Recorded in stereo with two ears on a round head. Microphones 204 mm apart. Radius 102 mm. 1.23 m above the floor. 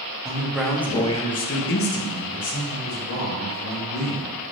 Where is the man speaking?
15° right (ahead or behind), 0.9 m; by 4.5 s 70° left (ahead or behind), 2 m.